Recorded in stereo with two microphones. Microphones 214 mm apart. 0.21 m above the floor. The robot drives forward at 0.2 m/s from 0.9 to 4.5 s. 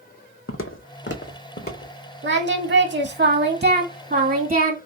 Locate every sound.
0.5 s footsteps: 75° left (ahead or behind), 0.6 m; by 1.9 s 45° left (ahead or behind), 1.0 m
2.2 s singing: 55° right (ahead or behind), 0.5 m; by 4.8 s 40° right (ahead or behind), 0.7 m